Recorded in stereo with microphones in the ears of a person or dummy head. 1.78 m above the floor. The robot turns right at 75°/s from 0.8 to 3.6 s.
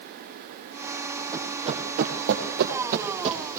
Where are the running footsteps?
15° right (ahead or behind), 3.5 m.